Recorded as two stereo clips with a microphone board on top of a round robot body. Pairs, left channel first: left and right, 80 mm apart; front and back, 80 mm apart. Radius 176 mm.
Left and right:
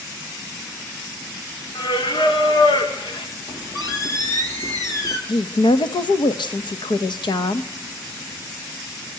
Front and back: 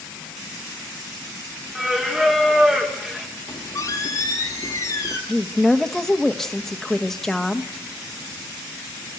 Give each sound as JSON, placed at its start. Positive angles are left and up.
{"t": 1.8, "sound": "singing", "azimuth_deg": 95, "distance_m": 3.5}
{"t": 3.5, "sound": "a squeak", "azimuth_deg": 45, "distance_m": 1.6}
{"t": 5.3, "sound": "a woman speaking", "azimuth_deg": 85, "distance_m": 1.5}